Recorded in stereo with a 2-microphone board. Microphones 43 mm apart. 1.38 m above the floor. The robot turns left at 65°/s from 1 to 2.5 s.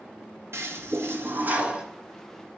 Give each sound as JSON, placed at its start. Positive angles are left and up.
{"t": 0.5, "sound": "a toilet flushing", "azimuth_deg": -110, "distance_m": 1.6}